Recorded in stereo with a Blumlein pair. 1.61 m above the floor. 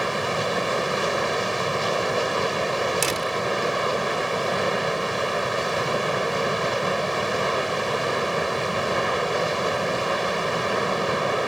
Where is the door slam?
20° right.